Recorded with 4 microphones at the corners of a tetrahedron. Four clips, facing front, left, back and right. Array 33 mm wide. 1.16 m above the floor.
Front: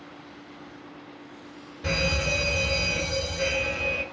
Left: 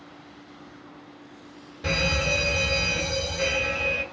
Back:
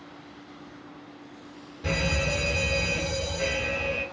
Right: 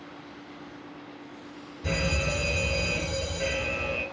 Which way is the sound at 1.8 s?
85° left.